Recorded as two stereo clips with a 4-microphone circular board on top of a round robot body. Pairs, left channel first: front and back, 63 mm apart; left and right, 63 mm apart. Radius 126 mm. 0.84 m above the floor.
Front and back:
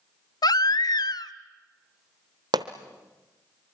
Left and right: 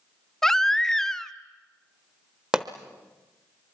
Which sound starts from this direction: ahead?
A baby crying, at 0.4 s.